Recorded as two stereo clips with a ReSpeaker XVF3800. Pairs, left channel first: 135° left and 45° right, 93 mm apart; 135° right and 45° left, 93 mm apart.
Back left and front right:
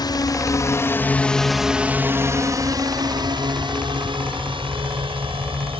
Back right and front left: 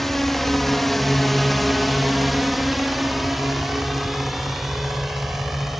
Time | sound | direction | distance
0.0 | a drone | 140° left | ?